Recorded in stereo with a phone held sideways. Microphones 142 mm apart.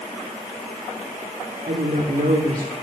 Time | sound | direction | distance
1.7 | a woman speaking | 80° right | 2.5 m